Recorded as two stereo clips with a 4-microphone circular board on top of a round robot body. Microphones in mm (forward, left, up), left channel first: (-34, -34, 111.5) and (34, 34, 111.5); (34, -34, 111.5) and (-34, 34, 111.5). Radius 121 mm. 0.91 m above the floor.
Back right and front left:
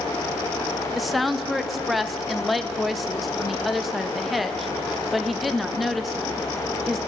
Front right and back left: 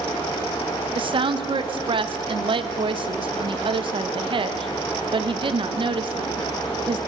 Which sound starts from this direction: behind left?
A woman speaking, at 0.9 s.